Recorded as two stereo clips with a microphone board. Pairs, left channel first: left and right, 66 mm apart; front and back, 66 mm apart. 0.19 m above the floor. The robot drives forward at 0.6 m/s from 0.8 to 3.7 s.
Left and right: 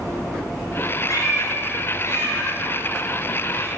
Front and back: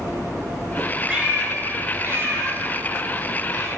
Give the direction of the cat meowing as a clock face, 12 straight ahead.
8 o'clock.